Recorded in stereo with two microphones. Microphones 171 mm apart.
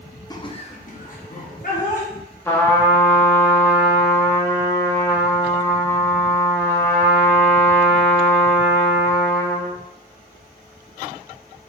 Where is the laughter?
20° left (ahead or behind), 0.7 m; by 2.1 s 55° left (ahead or behind), 1.3 m.